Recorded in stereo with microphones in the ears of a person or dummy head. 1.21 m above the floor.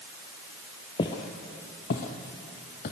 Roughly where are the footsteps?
Left.